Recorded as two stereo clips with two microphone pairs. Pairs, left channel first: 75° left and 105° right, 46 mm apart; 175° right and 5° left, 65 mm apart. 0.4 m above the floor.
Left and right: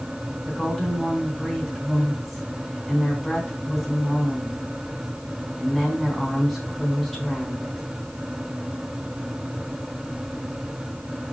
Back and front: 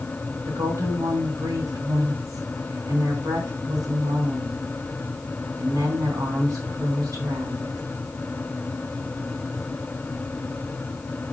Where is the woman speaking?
15° right, 4 m.